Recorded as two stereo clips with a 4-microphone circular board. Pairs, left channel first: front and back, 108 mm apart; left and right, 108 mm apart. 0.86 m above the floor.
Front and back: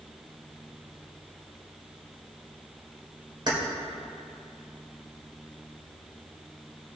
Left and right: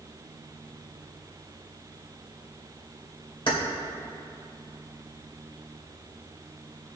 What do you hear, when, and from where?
3.5 s keys jangling: 130° left, 2 m